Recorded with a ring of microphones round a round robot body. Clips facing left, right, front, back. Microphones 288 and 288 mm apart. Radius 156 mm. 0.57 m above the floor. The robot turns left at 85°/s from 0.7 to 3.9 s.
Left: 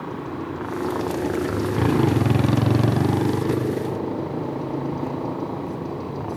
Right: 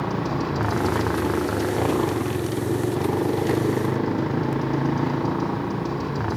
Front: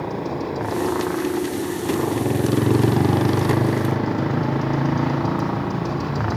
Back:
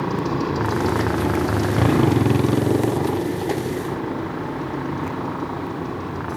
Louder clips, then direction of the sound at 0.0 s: Right 4 dB, back 3 dB; 115° right.